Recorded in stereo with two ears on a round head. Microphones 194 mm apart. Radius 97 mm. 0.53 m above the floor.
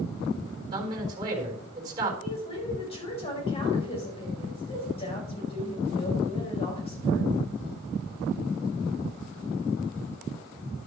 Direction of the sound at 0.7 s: 25° right (ahead or behind).